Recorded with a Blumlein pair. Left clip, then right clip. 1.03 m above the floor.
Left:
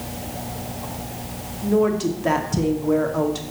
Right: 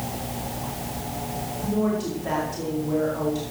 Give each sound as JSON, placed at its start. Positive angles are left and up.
{"t": 1.6, "sound": "a woman speaking", "azimuth_deg": 25, "distance_m": 2.5}